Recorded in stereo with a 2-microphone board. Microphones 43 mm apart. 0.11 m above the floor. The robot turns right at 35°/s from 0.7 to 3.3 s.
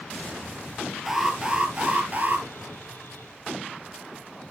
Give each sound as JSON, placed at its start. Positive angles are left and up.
{"t": 1.1, "sound": "an alarm", "azimuth_deg": -170, "distance_m": 1.6}